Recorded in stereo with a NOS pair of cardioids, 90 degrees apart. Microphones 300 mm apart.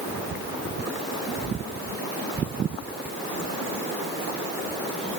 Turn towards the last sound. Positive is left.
No sound to turn to.